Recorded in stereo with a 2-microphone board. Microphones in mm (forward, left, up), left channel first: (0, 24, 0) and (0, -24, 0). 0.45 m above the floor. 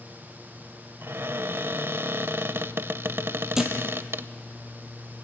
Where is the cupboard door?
60° right (ahead or behind), 0.6 m.